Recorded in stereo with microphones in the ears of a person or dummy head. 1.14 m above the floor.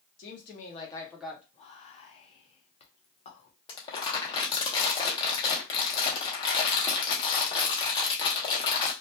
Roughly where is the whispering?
Left.